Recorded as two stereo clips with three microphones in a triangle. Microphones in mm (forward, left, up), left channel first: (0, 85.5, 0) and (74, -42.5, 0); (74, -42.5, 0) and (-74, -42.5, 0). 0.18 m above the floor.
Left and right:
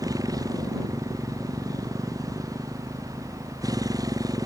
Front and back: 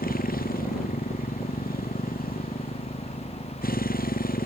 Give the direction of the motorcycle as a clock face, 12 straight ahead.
12 o'clock.